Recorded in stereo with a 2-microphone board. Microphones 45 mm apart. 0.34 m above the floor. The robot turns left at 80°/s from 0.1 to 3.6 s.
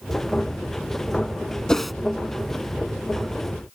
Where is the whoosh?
15° left (ahead or behind); by 1.9 s 5° right (ahead or behind).